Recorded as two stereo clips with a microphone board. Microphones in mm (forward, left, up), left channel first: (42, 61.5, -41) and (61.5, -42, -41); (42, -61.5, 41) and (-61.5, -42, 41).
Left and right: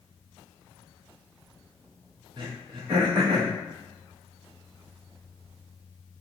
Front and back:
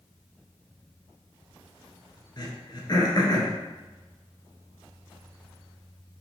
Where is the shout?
I don't hear a shout.